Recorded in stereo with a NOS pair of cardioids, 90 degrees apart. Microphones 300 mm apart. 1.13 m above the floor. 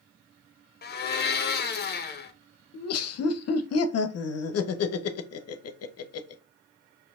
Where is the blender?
35° left, 0.9 m.